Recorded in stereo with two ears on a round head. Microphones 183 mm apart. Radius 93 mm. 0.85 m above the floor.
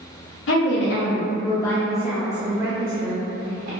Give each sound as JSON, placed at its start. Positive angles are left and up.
{"t": 0.5, "sound": "a woman speaking", "side_deg": 60, "distance_m": 1.0}